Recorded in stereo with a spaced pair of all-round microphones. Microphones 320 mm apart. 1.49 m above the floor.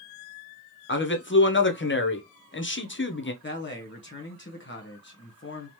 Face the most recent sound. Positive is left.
turn(degrees=35)  # may be behind; listen again after turning